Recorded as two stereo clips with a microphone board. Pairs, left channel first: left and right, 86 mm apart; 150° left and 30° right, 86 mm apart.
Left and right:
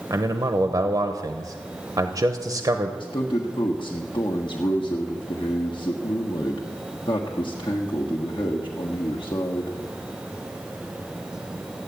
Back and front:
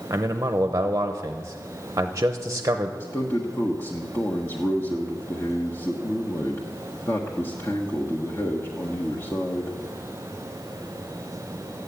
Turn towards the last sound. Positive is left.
turn(degrees=90)